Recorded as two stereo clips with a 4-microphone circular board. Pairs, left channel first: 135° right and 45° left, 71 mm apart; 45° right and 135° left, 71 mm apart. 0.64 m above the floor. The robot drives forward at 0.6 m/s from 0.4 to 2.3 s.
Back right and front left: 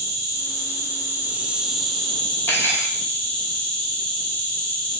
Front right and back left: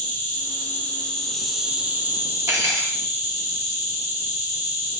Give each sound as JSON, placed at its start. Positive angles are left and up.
{"t": 0.0, "sound": "an insect", "azimuth_deg": 10, "distance_m": 0.9}
{"t": 2.5, "sound": "cutlery clinking", "azimuth_deg": 170, "distance_m": 0.8}